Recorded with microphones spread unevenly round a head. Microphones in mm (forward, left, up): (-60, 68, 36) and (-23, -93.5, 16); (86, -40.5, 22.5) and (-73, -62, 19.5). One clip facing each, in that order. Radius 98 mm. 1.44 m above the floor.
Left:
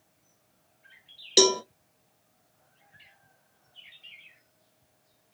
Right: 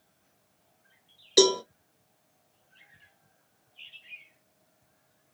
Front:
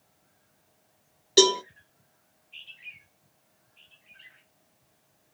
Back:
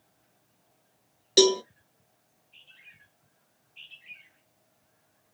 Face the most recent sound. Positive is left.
turn(degrees=120)